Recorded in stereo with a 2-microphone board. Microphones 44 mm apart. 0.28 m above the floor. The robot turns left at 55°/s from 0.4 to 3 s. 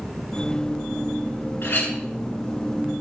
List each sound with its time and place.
1.6 s a clink: 60° left (ahead or behind), 1.9 m; by 1.9 s 45° left (ahead or behind), 1.9 m